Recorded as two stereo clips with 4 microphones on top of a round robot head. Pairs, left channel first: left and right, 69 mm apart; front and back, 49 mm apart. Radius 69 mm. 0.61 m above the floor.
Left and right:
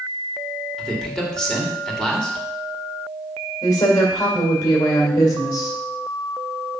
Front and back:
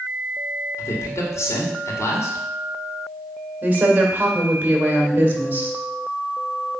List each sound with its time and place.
0.8 s a man speaking: 10° left, 2 m
3.6 s a woman speaking: 125° left, 2 m